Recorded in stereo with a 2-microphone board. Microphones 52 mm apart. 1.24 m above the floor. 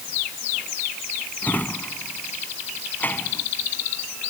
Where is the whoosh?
No whoosh in this recording.